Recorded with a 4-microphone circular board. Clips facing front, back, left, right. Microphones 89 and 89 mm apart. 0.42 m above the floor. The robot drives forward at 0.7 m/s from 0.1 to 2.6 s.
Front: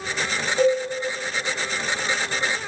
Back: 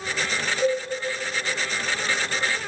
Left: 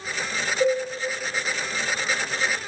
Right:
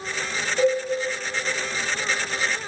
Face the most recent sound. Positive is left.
turn(degrees=-90)